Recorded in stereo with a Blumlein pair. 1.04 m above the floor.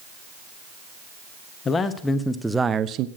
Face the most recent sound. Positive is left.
turn(degrees=-40)